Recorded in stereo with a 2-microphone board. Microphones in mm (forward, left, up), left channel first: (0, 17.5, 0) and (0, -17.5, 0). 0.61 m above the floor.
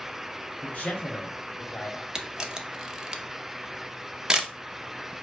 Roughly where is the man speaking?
Left.